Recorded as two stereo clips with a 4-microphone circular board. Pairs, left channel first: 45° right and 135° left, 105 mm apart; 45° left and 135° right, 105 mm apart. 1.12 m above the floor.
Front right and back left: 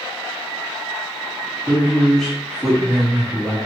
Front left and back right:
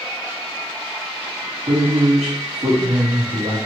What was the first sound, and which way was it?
A man speaking, 140° right.